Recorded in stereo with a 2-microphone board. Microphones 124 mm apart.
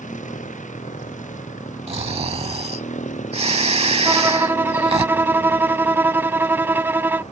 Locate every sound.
0.0 s a motorcycle: 70° left (ahead or behind); by 7.3 s 60° left (ahead or behind)
1.9 s snoring: 50° right (ahead or behind)
4.0 s a violin: 15° right (ahead or behind)